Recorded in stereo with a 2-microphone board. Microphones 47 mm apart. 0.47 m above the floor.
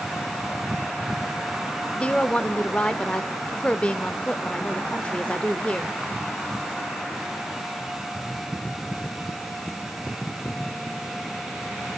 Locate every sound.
2.0 s a woman speaking: 25° left (ahead or behind), 1.2 m